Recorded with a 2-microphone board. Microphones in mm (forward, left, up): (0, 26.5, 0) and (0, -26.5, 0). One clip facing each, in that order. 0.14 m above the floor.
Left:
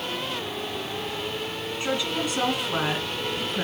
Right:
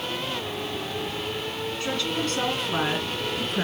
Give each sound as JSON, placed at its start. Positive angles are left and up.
{"t": 1.8, "sound": "a woman speaking", "side_deg": 20, "distance_m": 1.6}